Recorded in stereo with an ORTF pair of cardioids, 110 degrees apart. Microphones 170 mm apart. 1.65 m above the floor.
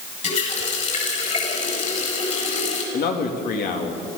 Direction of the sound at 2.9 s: 60° left.